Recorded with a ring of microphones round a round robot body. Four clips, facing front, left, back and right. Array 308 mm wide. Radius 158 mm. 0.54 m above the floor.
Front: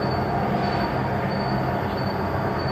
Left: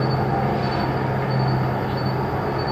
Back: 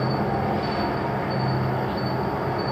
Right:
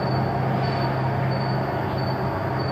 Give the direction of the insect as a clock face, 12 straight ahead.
9 o'clock.